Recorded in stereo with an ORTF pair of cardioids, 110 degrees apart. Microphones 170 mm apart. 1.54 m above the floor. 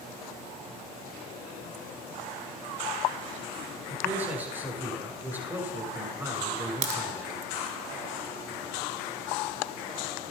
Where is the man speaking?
10° right, 9 m.